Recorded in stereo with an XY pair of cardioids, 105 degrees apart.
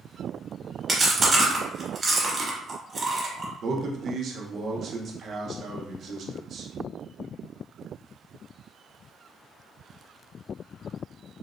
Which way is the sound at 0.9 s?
25° right.